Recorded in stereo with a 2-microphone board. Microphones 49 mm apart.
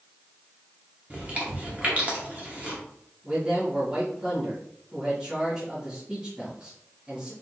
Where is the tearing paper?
No tearing paper in this recording.